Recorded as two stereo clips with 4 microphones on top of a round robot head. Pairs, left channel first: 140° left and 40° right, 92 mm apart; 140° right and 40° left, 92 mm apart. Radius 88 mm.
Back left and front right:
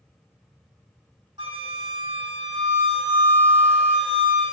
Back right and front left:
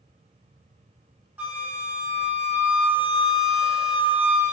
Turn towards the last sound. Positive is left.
turn(degrees=-25)